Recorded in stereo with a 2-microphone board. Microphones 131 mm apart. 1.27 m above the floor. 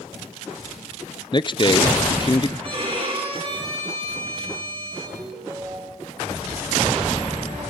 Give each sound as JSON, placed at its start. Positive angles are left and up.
{"t": 1.3, "sound": "a man speaking", "side_deg": 35, "distance_m": 0.5}
{"t": 2.6, "sound": "a violin", "side_deg": -45, "distance_m": 7.0}
{"t": 5.2, "sound": "a ringtone", "side_deg": -20, "distance_m": 3.5}